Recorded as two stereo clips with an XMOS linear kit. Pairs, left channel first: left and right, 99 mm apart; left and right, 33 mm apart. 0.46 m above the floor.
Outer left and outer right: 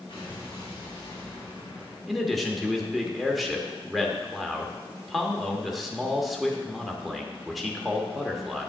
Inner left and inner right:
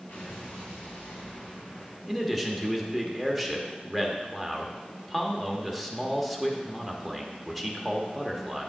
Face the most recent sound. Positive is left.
turn(degrees=0)  # may be behind; listen again after turning